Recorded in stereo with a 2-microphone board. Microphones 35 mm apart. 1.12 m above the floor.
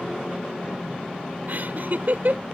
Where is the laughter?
60° right (ahead or behind).